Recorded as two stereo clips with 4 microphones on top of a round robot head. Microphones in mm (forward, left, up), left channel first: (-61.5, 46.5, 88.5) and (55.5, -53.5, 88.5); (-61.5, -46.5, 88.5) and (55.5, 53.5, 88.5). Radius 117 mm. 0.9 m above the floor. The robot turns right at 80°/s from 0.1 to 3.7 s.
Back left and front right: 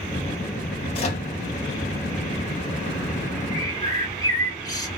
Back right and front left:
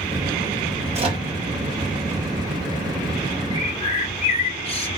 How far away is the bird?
About 1.3 m.